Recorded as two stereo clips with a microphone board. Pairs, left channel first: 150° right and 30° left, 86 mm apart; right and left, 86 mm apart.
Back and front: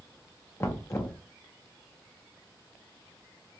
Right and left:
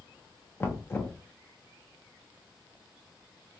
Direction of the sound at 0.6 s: 125° right.